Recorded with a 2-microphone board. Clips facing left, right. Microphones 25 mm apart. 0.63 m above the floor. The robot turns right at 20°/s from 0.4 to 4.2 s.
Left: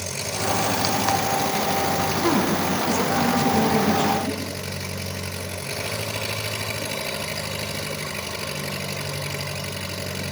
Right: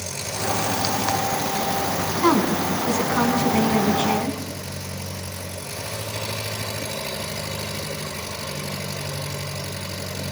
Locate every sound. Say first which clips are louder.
0.0 s an engine running: left 1 dB; 5° left, 8 m; by 10.3 s 85° left, 8 m
2.2 s a woman speaking: right 5 dB; 110° right, 6 m; by 4.4 s 65° right, 6 m